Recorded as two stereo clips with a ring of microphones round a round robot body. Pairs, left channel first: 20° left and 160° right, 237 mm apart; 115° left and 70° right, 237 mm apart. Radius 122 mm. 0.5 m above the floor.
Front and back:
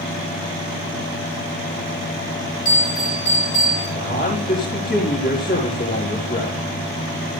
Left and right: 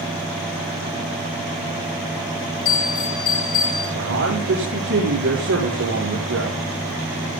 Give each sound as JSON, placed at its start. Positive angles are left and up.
{"t": 2.6, "sound": "a bell", "azimuth_deg": 80, "distance_m": 9.5}
{"t": 4.0, "sound": "a man speaking", "azimuth_deg": -30, "distance_m": 5.5}